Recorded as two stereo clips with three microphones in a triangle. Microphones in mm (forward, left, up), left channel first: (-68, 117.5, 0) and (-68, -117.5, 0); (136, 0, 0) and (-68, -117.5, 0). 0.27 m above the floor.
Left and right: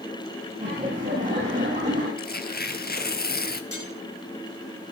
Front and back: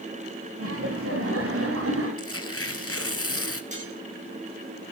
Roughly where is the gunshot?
I don't hear a gunshot.